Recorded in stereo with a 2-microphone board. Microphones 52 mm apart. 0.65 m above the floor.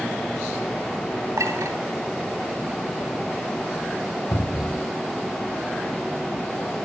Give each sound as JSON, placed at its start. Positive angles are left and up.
{"t": 1.4, "sound": "a clink", "side_deg": -80, "distance_m": 3.0}
{"t": 4.3, "sound": "a cupboard door", "side_deg": 60, "distance_m": 2.0}